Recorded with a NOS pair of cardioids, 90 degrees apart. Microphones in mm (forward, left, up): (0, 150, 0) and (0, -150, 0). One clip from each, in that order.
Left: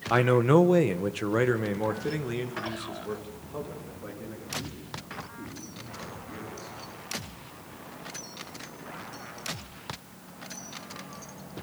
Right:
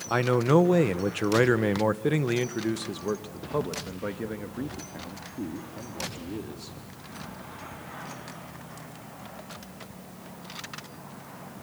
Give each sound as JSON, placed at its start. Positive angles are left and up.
{"t": 0.1, "sound": "a man speaking", "azimuth_deg": 15, "distance_m": 1.5}